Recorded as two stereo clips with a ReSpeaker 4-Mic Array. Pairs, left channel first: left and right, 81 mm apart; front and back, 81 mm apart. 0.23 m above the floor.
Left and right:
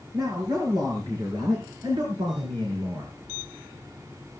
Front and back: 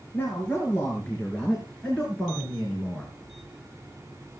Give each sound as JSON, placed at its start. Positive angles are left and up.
{"t": 0.1, "sound": "a man speaking", "azimuth_deg": -65, "distance_m": 5.0}